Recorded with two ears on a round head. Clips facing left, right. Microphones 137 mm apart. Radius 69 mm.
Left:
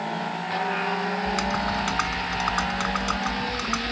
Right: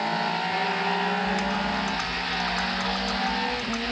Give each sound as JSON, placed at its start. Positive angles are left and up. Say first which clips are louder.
{"t": 1.2, "sound": "typing on a keyboard", "louder": "left 1 dB", "side_deg": 75}